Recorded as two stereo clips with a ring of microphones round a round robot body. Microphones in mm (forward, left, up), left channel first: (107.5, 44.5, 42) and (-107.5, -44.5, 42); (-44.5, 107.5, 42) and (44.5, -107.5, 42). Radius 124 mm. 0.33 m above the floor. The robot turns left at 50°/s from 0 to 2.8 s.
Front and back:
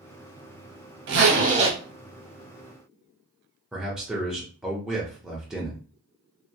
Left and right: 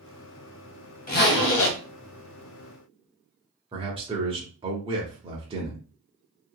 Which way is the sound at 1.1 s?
165° left.